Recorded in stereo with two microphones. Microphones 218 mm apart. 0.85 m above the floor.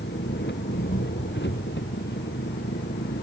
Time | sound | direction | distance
0.0 | an engine running | 55° left (ahead or behind) | ?